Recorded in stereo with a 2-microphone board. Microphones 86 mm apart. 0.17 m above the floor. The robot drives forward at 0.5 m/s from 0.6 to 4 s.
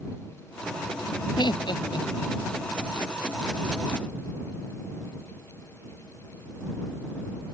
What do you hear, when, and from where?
1.4 s laughter: 60° left (ahead or behind); by 2.5 s 65° left (ahead or behind)